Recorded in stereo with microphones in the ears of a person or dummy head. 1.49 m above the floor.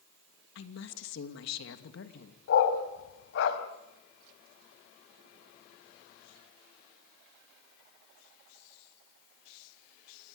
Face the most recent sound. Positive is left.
turn(degrees=70)  # may be behind; listen again after turning